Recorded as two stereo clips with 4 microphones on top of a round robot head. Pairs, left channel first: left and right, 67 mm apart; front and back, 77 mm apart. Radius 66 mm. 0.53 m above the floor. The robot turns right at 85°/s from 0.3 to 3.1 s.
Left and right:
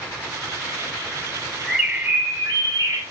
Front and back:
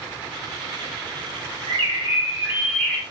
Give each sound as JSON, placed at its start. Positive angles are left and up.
{"t": 1.7, "sound": "a bird", "azimuth_deg": 175, "distance_m": 1.9}